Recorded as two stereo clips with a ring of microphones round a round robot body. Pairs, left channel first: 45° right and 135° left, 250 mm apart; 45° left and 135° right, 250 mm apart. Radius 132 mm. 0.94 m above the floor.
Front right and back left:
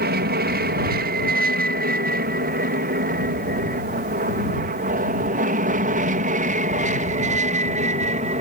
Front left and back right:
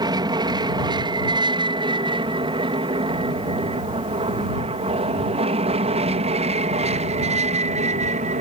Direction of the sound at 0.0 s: 160° left.